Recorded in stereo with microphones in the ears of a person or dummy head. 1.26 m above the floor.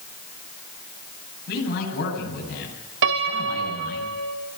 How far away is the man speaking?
About 9.5 m.